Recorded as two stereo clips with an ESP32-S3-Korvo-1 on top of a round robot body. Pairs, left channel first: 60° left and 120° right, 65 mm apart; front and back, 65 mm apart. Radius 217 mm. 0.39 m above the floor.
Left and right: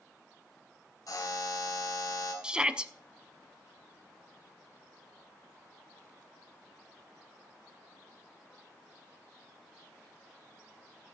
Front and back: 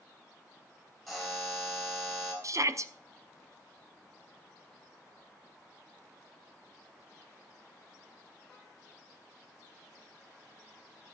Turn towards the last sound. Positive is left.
turn(degrees=165)